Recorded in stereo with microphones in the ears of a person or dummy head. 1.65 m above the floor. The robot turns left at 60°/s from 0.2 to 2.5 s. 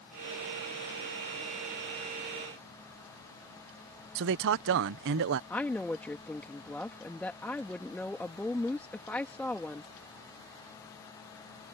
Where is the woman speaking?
5° left (ahead or behind).